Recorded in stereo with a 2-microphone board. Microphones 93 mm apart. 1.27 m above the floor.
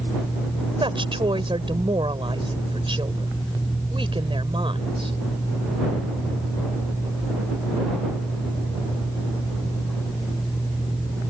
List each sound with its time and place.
0.8 s a woman speaking: 70° right (ahead or behind)